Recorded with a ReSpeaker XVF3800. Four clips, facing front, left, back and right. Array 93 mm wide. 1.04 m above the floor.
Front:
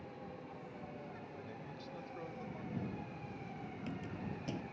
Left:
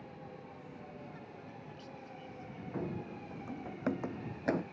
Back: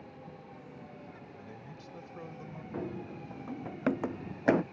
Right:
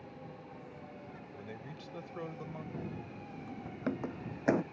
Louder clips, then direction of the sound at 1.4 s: Right 3 dB, back 1 dB; 100° right.